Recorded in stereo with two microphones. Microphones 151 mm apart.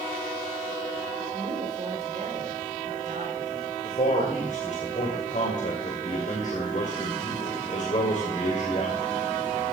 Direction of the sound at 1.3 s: 40° right (ahead or behind).